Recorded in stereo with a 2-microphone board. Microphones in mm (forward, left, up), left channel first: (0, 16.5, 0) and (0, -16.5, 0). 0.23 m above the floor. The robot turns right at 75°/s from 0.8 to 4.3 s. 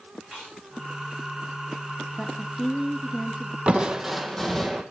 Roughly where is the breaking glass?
I don't hear breaking glass.